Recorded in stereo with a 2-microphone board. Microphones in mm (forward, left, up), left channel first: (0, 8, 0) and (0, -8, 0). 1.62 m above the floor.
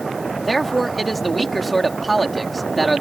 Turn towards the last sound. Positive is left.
turn(degrees=10)  # may be behind; listen again after turning